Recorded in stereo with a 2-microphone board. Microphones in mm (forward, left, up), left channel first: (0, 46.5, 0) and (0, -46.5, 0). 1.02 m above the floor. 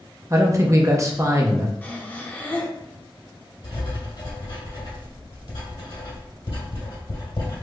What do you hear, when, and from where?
0.3 s a man speaking: 35° right (ahead or behind), 0.5 m
1.8 s breathing: 20° left (ahead or behind), 0.5 m
3.6 s writing: 65° left (ahead or behind), 1.6 m